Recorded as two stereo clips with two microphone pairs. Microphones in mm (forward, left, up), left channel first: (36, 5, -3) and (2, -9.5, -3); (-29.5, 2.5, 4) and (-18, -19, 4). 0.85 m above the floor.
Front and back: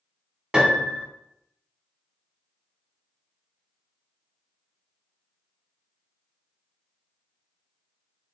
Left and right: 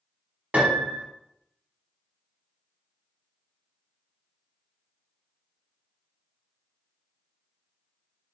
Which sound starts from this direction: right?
A piano, at 0.5 s.